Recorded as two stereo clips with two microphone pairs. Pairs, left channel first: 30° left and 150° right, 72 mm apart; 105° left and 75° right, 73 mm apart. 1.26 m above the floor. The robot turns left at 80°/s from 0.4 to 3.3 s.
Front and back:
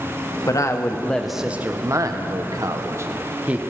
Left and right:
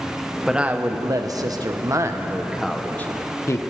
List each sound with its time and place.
0.5 s a woman speaking: 10° left, 0.9 m; by 3.6 s 145° left, 0.9 m